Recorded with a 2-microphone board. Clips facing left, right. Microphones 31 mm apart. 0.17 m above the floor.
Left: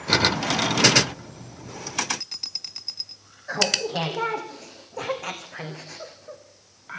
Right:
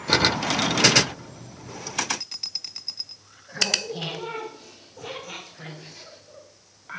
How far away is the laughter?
About 9 m.